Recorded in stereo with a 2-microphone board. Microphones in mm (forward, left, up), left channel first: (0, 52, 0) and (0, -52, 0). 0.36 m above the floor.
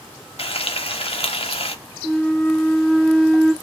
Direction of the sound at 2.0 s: 5° left (ahead or behind).